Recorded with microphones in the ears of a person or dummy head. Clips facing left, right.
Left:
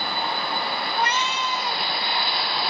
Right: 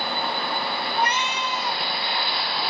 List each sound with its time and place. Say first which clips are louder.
0.9 s a cat meowing: even; 15° right (ahead or behind), 2.5 m